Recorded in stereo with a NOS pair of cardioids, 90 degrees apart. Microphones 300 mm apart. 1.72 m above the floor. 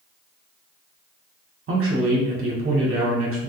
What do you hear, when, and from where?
1.7 s a man speaking: 45° right, 1.9 m